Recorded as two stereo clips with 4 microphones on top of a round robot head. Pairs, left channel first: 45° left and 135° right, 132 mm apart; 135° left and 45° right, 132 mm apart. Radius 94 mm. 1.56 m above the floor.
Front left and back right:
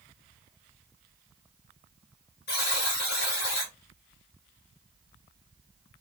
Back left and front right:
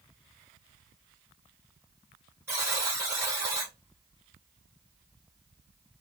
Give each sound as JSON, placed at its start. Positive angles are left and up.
{"t": 2.5, "sound": "a buzzer", "azimuth_deg": 30, "distance_m": 0.9}